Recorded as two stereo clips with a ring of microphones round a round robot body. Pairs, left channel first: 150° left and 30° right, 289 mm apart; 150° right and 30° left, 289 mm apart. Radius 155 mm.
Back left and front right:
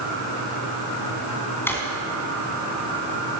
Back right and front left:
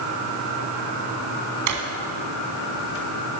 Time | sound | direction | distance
1.7 | a drawer | 65° left | 2 m